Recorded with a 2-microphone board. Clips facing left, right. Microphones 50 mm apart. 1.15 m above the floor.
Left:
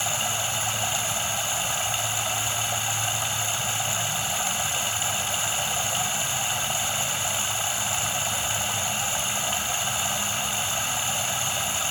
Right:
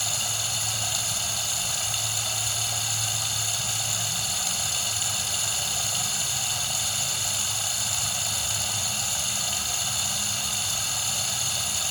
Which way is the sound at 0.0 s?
30° left (ahead or behind).